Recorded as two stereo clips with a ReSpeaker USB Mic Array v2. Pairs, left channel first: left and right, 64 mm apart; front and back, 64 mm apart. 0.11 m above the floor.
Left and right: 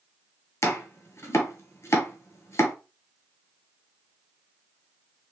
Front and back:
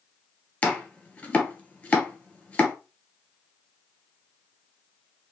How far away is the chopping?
About 0.8 m.